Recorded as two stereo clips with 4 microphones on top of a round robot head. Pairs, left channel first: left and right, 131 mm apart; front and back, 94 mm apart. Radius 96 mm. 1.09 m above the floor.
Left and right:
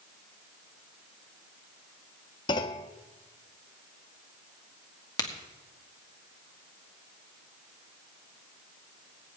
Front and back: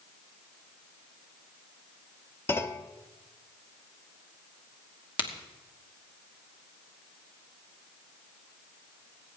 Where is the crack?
30° left, 1.9 m.